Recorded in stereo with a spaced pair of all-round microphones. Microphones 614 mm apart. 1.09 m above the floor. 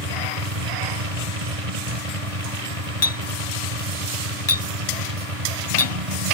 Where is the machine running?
60° right (ahead or behind).